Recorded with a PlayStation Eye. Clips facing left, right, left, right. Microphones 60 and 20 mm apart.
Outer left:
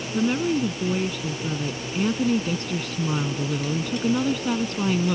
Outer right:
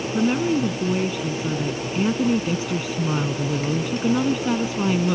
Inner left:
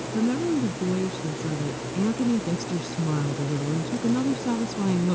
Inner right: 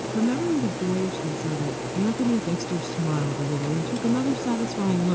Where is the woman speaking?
5° right (ahead or behind).